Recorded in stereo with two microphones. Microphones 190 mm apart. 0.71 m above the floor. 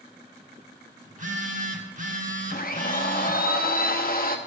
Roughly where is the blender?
Left.